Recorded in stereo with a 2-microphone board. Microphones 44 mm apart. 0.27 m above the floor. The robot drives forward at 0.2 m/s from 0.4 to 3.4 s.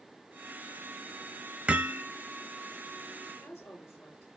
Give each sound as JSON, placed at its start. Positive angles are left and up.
{"t": 1.7, "sound": "hammering", "side_deg": -30, "distance_m": 1.1}
{"t": 3.3, "sound": "a woman speaking", "side_deg": 75, "distance_m": 5.0}